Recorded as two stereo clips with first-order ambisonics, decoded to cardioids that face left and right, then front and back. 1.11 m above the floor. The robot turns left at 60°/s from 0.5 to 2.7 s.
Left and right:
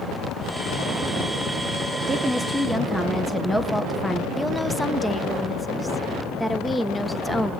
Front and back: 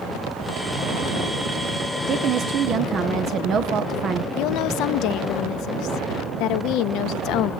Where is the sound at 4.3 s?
5° left, 0.8 m.